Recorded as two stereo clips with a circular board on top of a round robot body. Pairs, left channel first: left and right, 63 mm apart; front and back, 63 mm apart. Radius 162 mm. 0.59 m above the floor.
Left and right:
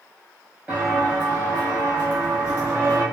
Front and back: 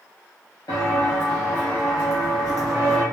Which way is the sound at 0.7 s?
20° right.